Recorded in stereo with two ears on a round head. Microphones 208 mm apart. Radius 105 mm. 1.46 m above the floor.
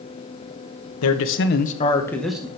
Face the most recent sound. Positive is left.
turn(degrees=-10)  # may be behind; listen again after turning